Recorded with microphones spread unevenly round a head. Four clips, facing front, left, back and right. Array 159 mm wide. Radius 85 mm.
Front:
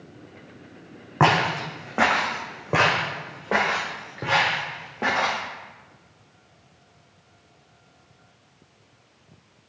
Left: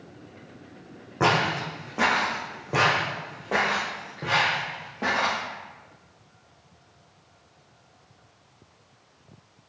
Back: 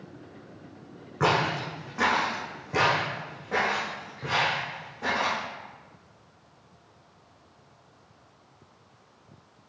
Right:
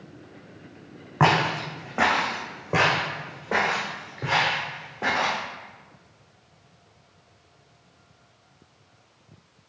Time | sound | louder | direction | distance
1.2 | footsteps | right 2 dB, front 5 dB | 20° right | 2.5 m